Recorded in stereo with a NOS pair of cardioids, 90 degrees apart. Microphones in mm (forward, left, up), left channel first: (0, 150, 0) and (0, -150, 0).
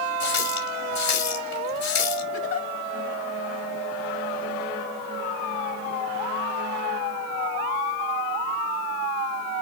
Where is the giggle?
50° left, 1.4 m.